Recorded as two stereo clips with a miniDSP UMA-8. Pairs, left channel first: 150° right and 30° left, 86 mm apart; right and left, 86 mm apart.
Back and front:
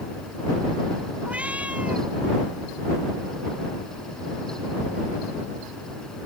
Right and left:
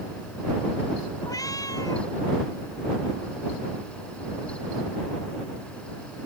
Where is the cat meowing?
45° right.